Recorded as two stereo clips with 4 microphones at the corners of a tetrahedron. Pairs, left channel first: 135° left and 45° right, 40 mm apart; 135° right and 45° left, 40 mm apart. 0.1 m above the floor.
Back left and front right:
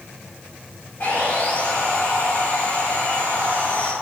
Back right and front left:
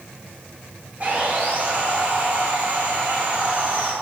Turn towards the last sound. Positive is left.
turn(degrees=95)